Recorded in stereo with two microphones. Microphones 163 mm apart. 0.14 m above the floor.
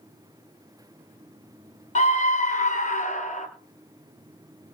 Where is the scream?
45° left (ahead or behind), 1.5 m; by 3.5 s 50° left (ahead or behind), 2.5 m.